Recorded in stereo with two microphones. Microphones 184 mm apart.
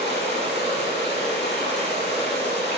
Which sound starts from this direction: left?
Running water, at 0.0 s.